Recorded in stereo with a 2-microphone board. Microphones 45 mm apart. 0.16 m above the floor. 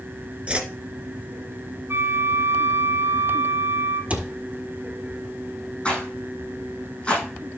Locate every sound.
0.5 s a whoosh: 25° right (ahead or behind), 1.3 m
1.9 s a flute: 60° right (ahead or behind), 2 m
4.1 s a cupboard door: 30° right (ahead or behind), 1.5 m
5.8 s a rattle: 25° left (ahead or behind), 6 m